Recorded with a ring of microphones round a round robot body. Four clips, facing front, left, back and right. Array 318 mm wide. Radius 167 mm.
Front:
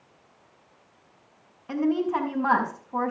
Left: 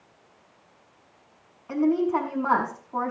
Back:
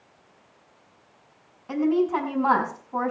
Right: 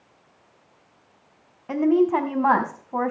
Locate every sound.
1.7 s a woman speaking: 80° right, 4.5 m